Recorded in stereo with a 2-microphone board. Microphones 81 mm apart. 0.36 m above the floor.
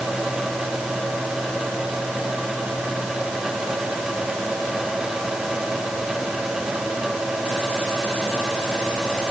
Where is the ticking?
No ticking in this recording.